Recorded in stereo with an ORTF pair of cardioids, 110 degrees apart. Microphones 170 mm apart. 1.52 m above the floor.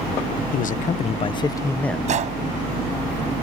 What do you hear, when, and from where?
0.5 s a man speaking: 55° left; by 2.0 s 5° left
2.1 s a gunshot: 45° right